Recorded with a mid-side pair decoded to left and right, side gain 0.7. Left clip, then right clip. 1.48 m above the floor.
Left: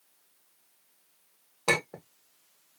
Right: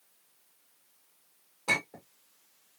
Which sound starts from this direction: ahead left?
A clink, at 1.7 s.